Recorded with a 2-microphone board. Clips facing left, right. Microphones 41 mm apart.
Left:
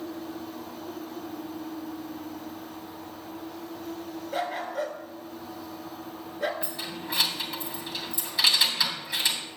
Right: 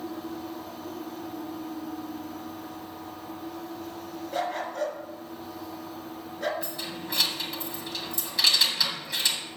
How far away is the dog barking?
About 3 m.